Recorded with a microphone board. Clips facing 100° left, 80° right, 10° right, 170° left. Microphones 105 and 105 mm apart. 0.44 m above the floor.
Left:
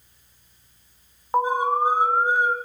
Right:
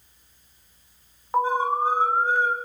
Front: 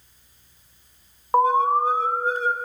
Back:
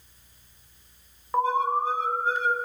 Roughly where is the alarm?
Ahead left.